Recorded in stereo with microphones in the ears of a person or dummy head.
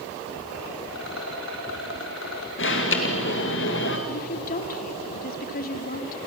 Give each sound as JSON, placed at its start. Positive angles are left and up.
{"t": 0.9, "sound": "a rattle", "side_deg": 65, "distance_m": 3.0}
{"t": 2.6, "sound": "an alarm", "side_deg": 55, "distance_m": 2.5}
{"t": 4.1, "sound": "a woman speaking", "side_deg": 50, "distance_m": 2.0}